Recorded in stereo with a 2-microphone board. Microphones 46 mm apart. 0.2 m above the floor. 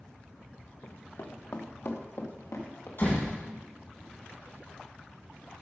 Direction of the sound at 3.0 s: 55° left (ahead or behind).